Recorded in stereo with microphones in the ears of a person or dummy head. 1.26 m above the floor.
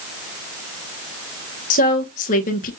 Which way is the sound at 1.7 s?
45° left (ahead or behind).